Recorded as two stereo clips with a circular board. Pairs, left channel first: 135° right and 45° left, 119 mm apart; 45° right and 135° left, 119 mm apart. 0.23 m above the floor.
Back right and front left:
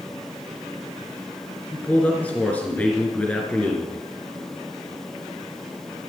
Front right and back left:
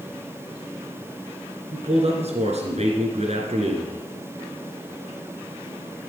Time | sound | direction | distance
1.7 | a man speaking | 150° left | 3 m